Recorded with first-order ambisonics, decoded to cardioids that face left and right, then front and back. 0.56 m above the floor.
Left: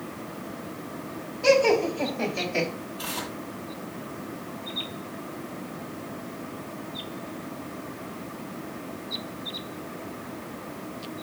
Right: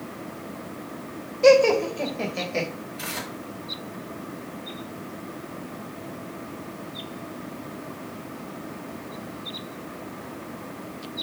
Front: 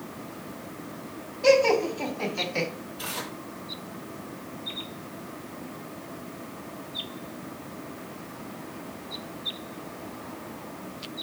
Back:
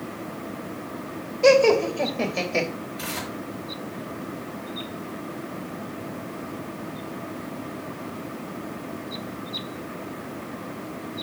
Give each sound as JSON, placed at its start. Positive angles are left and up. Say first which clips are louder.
{"t": 1.4, "sound": "laughter", "louder": "right 4 dB, back 3 dB", "azimuth_deg": -145, "distance_m": 2.5}
{"t": 3.0, "sound": "tearing paper", "louder": "even, back 1 dB", "azimuth_deg": -130, "distance_m": 4.5}